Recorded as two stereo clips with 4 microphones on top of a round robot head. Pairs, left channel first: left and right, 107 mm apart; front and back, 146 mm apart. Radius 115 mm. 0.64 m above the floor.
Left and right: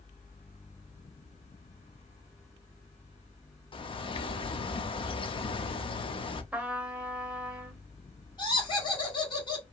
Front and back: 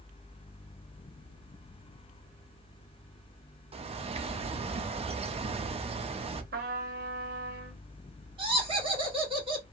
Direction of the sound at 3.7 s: 130° left.